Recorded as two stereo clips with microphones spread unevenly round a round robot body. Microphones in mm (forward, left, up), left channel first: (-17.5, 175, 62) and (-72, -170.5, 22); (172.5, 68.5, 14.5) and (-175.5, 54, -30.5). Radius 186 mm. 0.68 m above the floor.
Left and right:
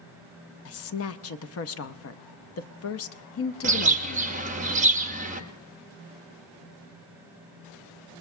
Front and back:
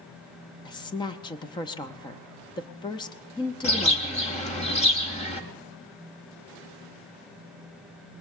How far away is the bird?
About 1.1 m.